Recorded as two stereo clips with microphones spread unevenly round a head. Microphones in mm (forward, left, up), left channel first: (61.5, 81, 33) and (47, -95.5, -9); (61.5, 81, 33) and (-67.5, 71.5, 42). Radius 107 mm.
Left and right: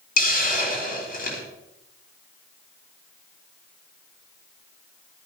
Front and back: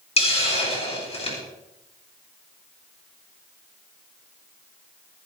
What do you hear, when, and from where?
0.2 s a hiss: 45° left, 4 m